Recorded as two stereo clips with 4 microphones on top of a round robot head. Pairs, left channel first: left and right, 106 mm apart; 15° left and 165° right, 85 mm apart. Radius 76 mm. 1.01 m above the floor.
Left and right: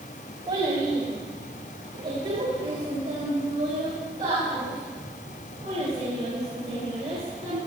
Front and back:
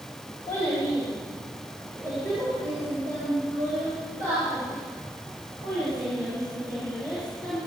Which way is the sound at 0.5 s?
45° right.